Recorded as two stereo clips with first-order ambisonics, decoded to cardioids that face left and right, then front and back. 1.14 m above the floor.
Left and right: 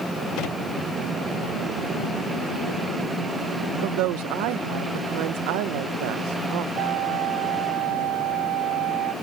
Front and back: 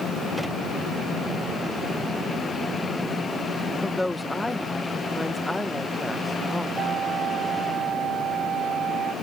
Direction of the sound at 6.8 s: 120° right.